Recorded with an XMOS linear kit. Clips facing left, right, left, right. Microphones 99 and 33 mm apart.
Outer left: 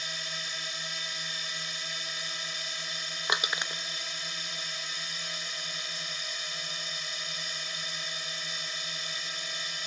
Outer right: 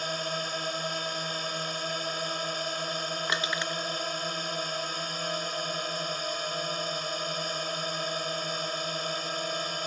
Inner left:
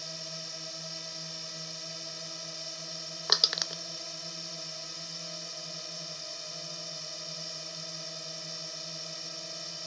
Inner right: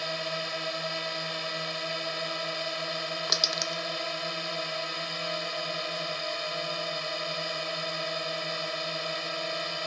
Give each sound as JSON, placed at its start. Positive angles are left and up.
{"t": 0.0, "sound": "a drone", "side_deg": -50}
{"t": 3.3, "sound": "crushing", "side_deg": 15}